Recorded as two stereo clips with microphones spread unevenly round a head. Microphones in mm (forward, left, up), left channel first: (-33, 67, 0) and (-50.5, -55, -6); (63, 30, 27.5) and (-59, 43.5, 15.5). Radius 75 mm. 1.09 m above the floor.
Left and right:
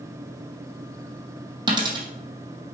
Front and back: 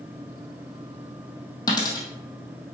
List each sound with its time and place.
1.7 s a dropped coin: 55° right, 1.5 m